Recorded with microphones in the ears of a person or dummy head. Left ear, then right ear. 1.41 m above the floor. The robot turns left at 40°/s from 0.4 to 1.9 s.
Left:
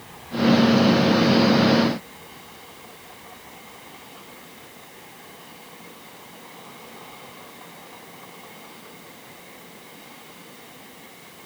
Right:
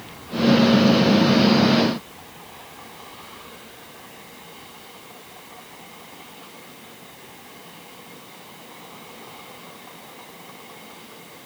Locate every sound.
Only background noise.